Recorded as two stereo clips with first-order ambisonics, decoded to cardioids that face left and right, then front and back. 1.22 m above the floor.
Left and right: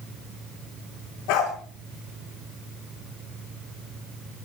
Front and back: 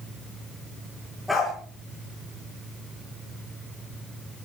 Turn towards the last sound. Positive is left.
turn(degrees=90)